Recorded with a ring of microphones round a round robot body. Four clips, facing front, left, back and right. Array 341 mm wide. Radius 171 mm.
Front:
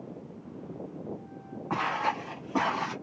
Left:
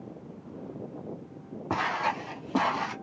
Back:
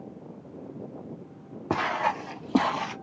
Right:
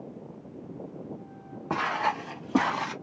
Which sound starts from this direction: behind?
Footsteps, at 1.7 s.